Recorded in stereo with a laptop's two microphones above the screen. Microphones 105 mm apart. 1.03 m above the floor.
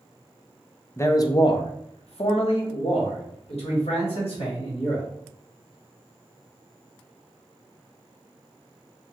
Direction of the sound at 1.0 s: 25° left (ahead or behind).